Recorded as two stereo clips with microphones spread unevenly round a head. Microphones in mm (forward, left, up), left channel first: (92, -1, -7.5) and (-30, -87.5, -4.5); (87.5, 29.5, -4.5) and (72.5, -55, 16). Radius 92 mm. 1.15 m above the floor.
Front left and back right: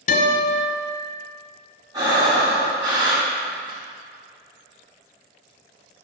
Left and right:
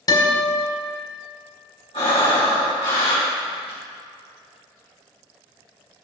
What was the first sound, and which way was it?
A guitar, 40° left.